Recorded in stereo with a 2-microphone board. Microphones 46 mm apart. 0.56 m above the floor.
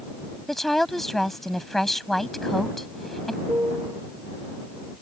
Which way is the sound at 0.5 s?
5° left (ahead or behind).